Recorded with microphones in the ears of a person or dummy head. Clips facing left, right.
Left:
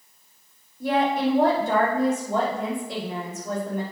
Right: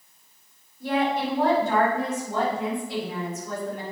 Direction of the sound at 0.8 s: 65° left (ahead or behind).